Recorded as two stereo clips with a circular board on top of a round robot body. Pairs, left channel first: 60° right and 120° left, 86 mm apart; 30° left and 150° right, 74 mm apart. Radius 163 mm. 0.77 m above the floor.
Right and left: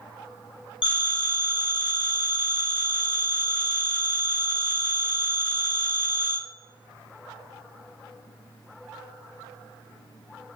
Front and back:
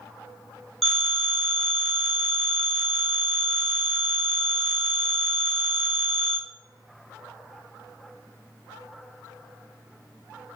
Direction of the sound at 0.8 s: 55° right.